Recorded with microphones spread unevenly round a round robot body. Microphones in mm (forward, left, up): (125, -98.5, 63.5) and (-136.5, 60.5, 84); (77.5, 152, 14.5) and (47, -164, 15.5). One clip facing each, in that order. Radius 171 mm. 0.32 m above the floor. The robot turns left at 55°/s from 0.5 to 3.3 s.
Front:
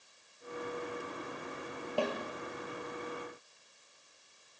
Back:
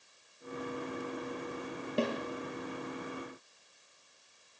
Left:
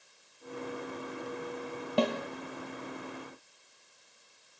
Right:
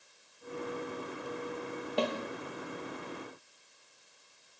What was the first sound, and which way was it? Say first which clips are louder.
A snare drum: back 2 dB, left 4 dB; 80° left.